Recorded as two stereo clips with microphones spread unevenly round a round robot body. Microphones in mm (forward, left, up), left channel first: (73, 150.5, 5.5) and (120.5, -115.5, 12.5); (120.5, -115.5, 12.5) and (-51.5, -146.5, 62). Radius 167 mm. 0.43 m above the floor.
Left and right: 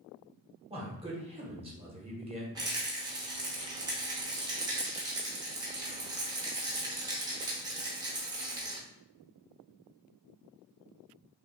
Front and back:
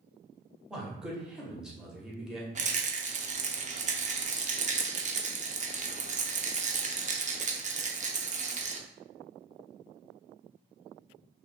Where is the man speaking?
45° right, 1.3 m.